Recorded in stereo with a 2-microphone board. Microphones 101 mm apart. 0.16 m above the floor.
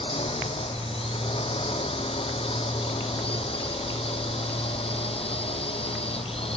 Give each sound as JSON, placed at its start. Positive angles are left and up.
{"t": 0.0, "sound": "a drone", "side_deg": 70}